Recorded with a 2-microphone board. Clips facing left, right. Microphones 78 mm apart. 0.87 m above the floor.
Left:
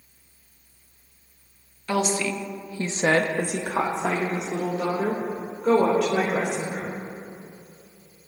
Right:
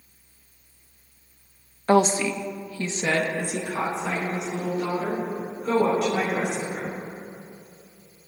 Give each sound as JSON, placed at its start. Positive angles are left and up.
{"t": 1.9, "sound": "a woman speaking", "side_deg": -40, "distance_m": 0.7}